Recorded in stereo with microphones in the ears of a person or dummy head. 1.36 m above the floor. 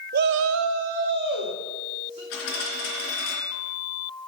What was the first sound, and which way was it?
A shout, 50° right (ahead or behind).